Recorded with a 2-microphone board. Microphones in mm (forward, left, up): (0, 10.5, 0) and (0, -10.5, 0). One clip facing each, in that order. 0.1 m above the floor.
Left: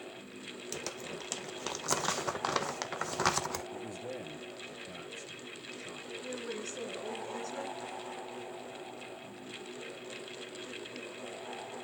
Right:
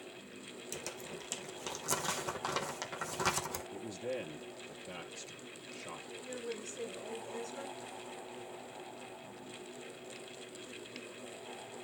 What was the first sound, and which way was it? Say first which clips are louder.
Crumpling: left 3 dB; 25° left (ahead or behind).